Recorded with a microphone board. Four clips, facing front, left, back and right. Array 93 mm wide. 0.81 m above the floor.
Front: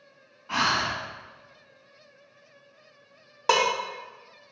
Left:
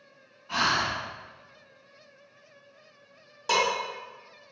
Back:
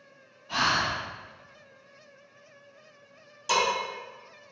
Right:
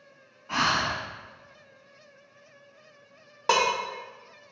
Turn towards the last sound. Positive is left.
turn(degrees=-35)